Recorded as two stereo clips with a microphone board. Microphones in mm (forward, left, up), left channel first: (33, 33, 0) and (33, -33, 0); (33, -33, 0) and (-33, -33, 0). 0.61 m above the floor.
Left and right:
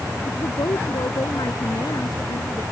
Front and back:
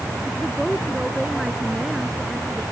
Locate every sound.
0.3 s a woman speaking: 95° left